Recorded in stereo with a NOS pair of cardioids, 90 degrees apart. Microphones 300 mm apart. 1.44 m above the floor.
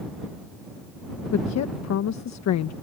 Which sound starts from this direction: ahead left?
A woman speaking, at 1.3 s.